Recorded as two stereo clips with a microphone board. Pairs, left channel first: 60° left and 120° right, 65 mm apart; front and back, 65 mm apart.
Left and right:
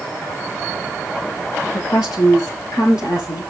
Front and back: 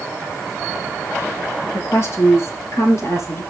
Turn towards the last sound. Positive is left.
turn(degrees=40)